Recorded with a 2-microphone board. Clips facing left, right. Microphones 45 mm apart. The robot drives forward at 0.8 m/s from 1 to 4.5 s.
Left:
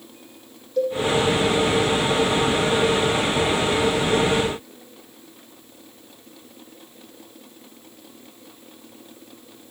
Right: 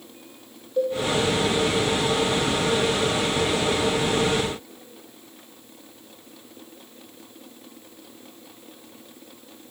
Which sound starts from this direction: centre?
A cowbell, at 0.8 s.